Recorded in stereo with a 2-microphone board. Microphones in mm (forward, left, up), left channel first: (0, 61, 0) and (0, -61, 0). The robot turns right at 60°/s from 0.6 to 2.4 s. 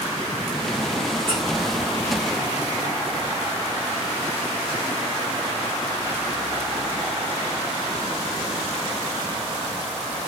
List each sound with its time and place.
1.3 s a squeak: 45° right (ahead or behind), 6 m; by 1.4 s 35° right (ahead or behind), 6 m